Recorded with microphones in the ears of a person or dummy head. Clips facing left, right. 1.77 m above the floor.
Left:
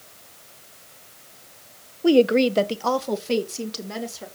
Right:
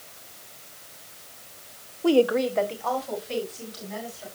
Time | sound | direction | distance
2.0 | a woman speaking | 15° left (ahead or behind) | 0.9 m